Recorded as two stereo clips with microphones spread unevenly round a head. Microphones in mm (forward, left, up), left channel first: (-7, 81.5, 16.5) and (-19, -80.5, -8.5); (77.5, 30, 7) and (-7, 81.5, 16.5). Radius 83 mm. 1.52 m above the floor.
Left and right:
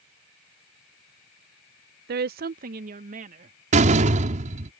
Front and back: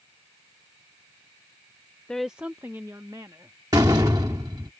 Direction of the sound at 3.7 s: 145° right.